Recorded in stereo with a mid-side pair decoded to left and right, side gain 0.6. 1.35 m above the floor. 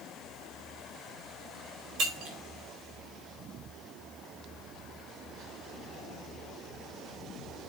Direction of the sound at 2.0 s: 55° right.